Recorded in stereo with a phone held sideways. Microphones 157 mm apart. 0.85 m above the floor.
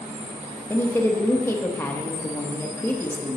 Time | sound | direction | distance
0.7 | a woman speaking | 15° left (ahead or behind) | 0.9 m